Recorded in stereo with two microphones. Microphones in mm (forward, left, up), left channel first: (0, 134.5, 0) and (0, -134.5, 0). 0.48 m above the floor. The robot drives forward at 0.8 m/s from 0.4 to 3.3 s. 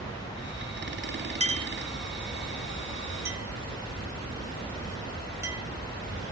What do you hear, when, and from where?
1.4 s a clink: 25° right (ahead or behind), 0.7 m; by 5.6 s 10° right (ahead or behind), 1.8 m